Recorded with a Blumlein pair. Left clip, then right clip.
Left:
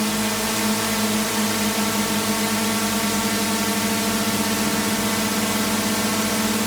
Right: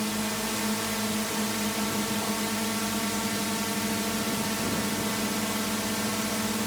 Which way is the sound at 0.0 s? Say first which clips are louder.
Left 7 dB; 70° left.